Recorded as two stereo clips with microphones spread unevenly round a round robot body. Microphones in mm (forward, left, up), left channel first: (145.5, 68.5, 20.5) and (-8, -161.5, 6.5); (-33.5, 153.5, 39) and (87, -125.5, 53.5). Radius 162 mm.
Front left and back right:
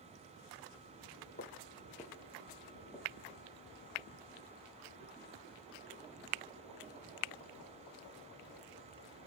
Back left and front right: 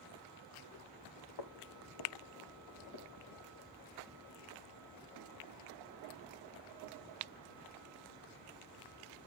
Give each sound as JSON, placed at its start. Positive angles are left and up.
{"t": 1.4, "sound": "footsteps", "azimuth_deg": 115, "distance_m": 1.4}